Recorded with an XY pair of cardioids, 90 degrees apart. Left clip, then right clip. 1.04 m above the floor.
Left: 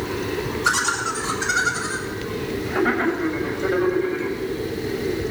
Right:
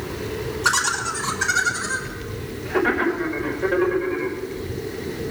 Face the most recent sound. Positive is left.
turn(degrees=-70)